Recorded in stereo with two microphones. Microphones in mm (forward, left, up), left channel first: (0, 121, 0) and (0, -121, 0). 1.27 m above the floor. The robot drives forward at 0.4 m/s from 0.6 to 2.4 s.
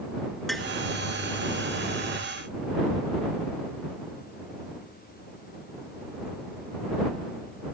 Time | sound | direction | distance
0.5 | tapping | centre (ahead or behind) | ?